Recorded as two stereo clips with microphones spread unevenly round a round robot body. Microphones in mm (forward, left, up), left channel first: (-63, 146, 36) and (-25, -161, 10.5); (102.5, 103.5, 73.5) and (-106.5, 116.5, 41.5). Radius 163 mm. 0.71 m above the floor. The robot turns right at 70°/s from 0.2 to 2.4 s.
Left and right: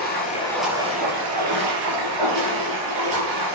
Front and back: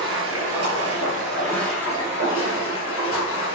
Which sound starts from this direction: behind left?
Running water, at 0.0 s.